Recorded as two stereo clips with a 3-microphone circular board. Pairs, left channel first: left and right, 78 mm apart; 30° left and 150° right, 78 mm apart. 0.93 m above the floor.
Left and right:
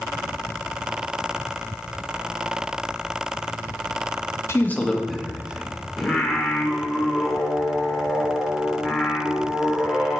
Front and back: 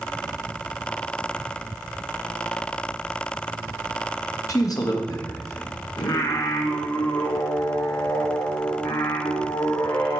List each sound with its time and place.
4.5 s a man speaking: 50° left, 1.1 m; by 5.8 s 20° right, 2 m
6.0 s singing: 5° left, 1.4 m